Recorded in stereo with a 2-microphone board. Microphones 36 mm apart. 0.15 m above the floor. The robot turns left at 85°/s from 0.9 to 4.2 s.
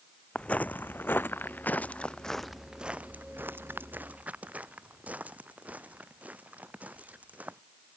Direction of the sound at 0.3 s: 30° left (ahead or behind).